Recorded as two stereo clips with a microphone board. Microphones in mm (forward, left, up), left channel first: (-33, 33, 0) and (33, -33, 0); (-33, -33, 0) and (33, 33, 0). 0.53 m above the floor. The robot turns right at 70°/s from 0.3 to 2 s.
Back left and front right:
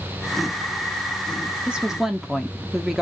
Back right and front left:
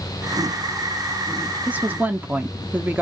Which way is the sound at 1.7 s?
15° left.